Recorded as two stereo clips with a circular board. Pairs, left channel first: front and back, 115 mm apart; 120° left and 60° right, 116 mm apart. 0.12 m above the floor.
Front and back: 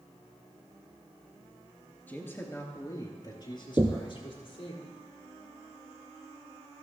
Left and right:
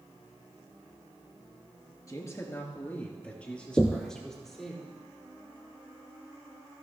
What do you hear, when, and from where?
2.1 s a man speaking: 70° left, 2 m; by 4.8 s 30° left, 4 m
3.8 s knocking: 150° right, 0.8 m